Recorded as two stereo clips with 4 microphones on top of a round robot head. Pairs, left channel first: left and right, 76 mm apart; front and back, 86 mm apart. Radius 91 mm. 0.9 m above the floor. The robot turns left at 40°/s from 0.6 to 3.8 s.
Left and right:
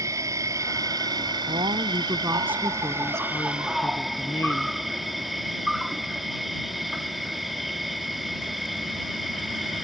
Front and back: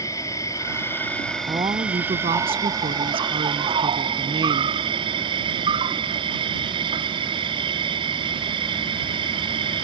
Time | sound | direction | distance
0.0 | an insect | 50° right | ?
1.5 | a woman speaking | 120° right | ?